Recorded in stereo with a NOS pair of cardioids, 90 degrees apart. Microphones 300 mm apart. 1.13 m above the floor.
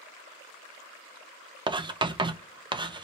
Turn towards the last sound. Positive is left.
turn(degrees=-15)